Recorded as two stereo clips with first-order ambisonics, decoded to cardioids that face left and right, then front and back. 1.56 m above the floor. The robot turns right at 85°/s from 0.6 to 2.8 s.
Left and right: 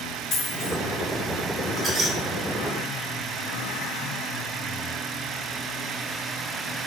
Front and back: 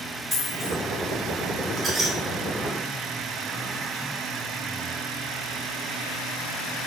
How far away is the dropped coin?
About 1.6 m.